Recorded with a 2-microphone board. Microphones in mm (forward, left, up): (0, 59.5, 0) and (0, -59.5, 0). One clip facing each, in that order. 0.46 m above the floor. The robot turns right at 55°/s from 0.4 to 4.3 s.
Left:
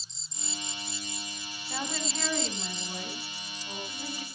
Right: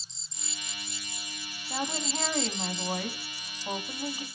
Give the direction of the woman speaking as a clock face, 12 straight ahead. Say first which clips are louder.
Right 2 dB; 6 o'clock.